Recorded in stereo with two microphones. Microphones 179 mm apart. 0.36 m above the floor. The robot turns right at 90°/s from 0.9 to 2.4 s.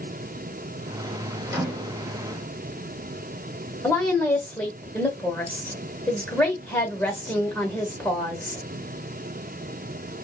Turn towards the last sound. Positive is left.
turn(degrees=5)  # may be behind; listen again after turning